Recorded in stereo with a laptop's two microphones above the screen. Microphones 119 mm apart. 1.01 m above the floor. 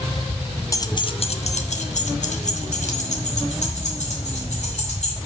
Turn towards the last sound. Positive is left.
turn(degrees=70)  # may be behind; listen again after turning